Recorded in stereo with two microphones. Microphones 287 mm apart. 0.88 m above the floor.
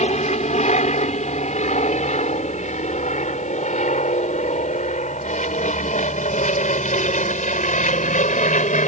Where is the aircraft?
25° left (ahead or behind).